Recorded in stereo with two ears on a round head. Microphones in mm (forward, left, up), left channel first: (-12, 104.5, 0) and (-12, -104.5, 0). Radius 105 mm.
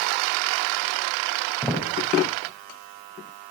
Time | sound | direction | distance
1.6 | footsteps | centre (ahead or behind) | 5 m